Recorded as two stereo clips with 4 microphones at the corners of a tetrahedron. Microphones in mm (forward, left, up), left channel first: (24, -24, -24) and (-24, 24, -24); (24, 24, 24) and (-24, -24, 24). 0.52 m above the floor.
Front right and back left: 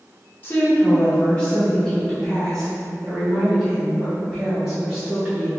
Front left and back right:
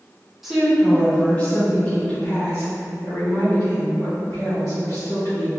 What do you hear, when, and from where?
0.4 s a woman speaking: 55° right, 1.0 m; by 5.5 s 65° left, 2.5 m